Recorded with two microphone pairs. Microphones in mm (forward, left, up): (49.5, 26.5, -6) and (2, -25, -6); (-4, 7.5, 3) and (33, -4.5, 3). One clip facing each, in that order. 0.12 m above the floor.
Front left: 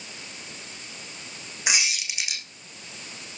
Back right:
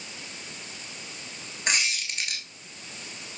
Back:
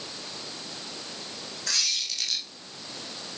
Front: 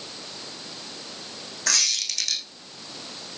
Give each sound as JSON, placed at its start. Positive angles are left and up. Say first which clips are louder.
{"t": 1.7, "sound": "a squeak", "louder": "even, front 3 dB", "azimuth_deg": -35, "distance_m": 3.0}